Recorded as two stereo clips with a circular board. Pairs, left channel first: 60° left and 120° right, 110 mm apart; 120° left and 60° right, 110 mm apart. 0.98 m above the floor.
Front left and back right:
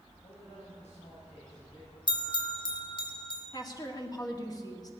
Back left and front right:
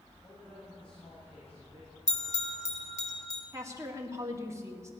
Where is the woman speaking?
5° left, 1.9 m.